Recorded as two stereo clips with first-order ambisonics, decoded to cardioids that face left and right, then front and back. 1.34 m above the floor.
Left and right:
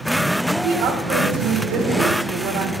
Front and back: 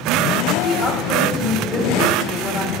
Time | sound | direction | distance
0.6 | a woman speaking | 50° right | 1.5 m